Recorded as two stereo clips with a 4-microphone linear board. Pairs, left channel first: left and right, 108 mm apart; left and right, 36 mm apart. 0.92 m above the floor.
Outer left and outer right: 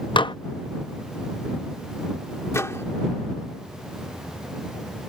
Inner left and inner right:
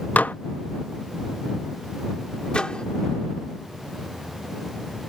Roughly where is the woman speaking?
No woman speaking in this recording.